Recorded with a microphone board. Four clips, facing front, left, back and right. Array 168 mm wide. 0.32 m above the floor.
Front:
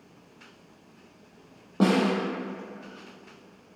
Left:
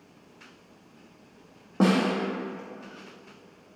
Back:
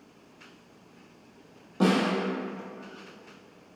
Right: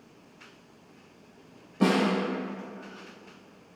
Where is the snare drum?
55° left, 1.9 m.